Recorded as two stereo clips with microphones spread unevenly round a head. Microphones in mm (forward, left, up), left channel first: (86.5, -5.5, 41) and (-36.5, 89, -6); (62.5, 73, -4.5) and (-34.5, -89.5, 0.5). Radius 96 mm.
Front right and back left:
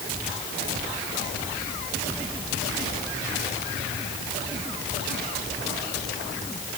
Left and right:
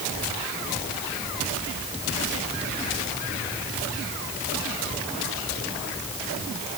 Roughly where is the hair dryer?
I don't hear a hair dryer.